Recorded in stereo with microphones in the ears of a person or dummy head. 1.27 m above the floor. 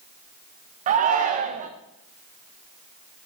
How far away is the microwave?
No microwave in this recording.